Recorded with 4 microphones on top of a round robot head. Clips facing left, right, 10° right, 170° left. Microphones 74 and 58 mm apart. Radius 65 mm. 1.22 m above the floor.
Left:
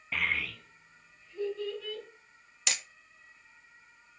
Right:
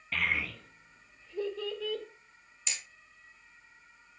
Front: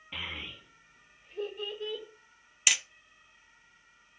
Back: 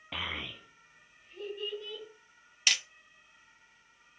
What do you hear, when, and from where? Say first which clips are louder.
0.1 s a child speaking: even, back 2 dB; 170° left, 0.7 m; by 2.0 s 75° right, 1.7 m
2.7 s hammering: left 6 dB, front 1 dB; 70° left, 0.5 m